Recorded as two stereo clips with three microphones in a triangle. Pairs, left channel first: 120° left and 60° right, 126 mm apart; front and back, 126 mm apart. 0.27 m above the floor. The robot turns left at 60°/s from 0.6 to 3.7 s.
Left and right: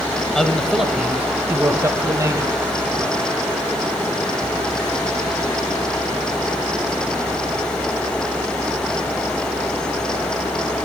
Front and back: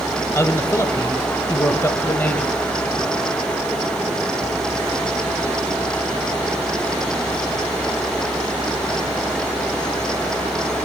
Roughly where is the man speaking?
Ahead left.